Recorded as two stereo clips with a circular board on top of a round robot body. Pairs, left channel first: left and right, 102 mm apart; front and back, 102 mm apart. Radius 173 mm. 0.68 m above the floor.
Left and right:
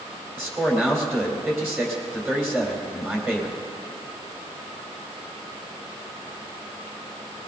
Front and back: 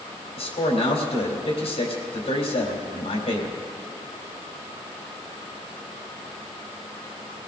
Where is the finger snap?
No finger snap in this recording.